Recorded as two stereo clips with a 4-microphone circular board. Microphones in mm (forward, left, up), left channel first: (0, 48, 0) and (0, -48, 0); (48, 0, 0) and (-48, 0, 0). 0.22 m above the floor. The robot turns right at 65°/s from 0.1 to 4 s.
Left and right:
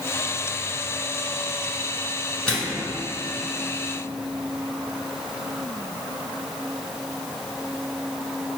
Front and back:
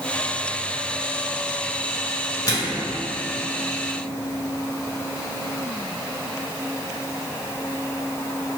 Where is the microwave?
10° left, 1.2 m; by 2.9 s 40° left, 1.2 m.